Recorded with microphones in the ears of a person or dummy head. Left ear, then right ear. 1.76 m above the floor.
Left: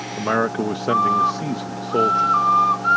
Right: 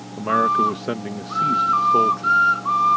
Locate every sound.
0.2 s a man speaking: 15° left (ahead or behind)